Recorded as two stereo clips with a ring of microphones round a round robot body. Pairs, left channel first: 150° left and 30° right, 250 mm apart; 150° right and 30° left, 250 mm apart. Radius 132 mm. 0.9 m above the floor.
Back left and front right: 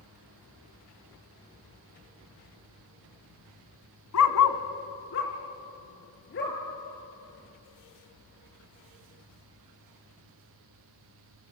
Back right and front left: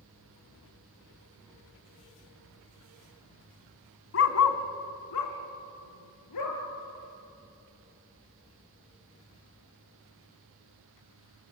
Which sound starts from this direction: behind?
A dog barking, at 4.1 s.